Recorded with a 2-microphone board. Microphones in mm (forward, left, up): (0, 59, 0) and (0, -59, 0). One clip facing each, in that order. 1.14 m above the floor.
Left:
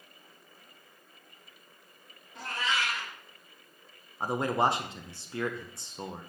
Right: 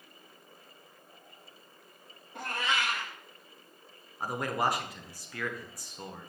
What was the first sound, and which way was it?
A cat meowing, 60° right (ahead or behind).